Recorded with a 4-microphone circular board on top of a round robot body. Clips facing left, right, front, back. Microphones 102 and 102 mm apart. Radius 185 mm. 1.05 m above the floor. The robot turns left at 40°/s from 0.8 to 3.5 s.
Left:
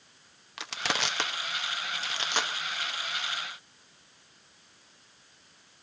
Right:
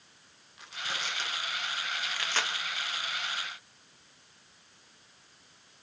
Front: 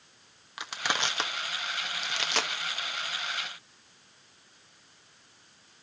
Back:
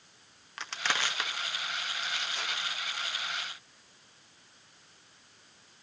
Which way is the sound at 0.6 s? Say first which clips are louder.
Left 6 dB, front 2 dB; 80° left.